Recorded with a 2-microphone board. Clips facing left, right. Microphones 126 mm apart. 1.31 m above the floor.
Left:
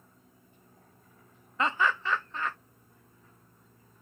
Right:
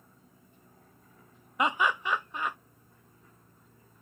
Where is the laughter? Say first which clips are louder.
Right 1 dB; 15° right (ahead or behind).